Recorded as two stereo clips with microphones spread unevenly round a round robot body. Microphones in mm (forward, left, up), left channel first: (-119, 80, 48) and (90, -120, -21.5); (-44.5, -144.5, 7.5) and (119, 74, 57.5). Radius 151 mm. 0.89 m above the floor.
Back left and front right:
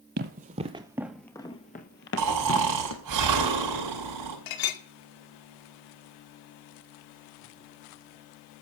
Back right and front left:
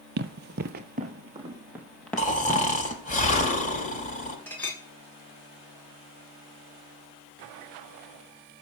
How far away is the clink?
About 1.6 m.